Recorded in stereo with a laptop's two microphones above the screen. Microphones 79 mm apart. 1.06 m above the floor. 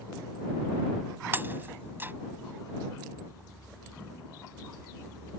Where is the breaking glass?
25° right (ahead or behind).